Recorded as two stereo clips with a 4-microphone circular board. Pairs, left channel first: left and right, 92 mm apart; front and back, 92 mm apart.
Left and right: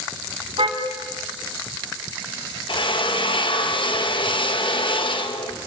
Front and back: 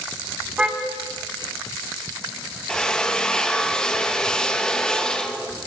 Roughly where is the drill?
Left.